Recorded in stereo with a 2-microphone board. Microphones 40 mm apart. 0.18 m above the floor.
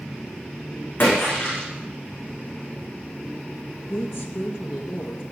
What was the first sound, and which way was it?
A splash, 55° left (ahead or behind).